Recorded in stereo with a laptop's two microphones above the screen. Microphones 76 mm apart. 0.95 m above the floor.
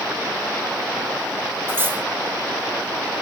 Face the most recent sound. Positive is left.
turn(degrees=-30)  # may be behind; listen again after turning